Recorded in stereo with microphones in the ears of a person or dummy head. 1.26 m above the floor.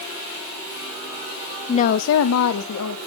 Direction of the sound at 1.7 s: 25° left (ahead or behind).